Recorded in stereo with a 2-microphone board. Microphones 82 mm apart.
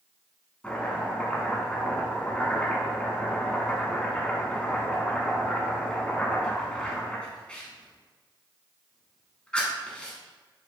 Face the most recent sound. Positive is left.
turn(degrees=10)  # may be behind; listen again after turning